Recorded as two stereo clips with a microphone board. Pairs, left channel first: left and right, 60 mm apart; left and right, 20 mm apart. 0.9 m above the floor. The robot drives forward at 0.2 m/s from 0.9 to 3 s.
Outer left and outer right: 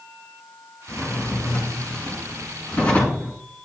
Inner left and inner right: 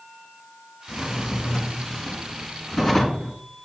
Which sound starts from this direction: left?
A drawer, at 0.9 s.